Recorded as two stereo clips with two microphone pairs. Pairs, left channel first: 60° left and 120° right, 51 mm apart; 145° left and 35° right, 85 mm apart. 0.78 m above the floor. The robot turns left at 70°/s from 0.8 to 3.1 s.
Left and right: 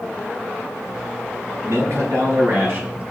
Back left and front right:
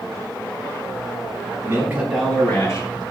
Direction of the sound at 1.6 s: 85° right.